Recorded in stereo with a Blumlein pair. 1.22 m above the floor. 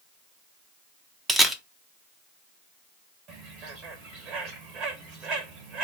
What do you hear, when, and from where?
1.3 s a camera shutter: 5° right, 0.5 m
3.3 s a bird: 35° right, 1.1 m